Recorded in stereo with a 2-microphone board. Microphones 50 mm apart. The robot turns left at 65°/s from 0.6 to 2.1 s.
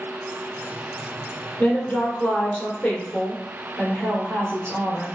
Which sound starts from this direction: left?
A woman speaking, at 1.6 s.